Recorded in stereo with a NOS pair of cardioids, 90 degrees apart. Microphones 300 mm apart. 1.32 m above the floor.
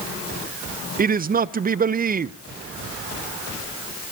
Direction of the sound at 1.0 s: 30° right.